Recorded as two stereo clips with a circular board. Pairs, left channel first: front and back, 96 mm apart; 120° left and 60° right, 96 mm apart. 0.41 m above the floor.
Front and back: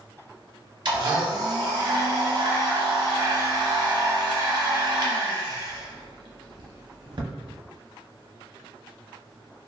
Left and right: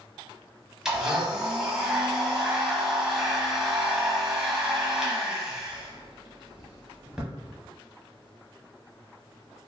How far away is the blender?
About 0.7 m.